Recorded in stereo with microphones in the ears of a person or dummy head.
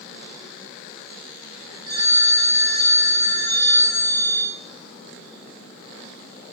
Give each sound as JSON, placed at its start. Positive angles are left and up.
{"t": 1.9, "sound": "a phone ringing", "side_deg": -25, "distance_m": 3.0}